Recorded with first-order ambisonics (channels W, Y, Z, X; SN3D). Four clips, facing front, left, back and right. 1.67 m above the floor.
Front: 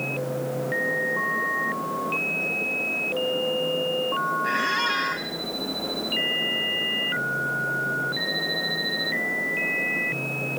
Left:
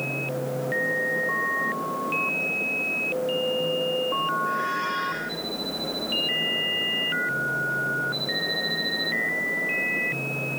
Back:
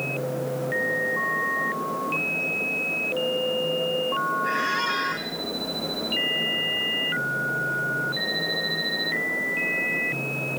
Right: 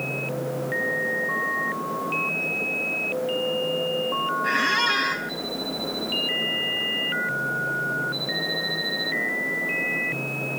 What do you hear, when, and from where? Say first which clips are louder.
4.4 s a squeak: right 5 dB, front 1 dB; 80° right, 2.5 m